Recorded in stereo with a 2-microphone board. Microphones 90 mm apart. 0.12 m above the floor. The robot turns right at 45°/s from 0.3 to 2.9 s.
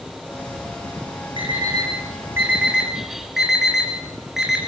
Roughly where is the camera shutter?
I don't hear a camera shutter.